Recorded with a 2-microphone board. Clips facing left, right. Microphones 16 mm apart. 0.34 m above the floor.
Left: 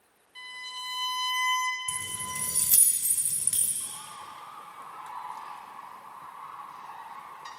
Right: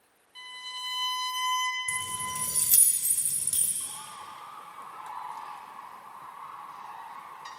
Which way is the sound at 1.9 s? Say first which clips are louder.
Right 3 dB; 50° left (ahead or behind).